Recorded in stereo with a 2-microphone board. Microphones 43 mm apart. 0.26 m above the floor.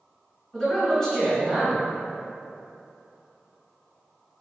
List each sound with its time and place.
0.5 s a man speaking: 15° left (ahead or behind), 1.4 m